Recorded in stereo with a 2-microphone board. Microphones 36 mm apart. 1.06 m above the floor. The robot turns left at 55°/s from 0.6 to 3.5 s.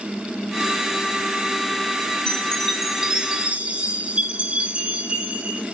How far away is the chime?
About 2.5 m.